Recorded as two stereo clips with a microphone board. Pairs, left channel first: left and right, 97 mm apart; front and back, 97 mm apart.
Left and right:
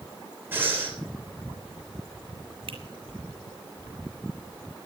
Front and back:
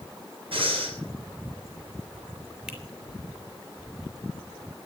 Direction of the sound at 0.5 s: 160° right.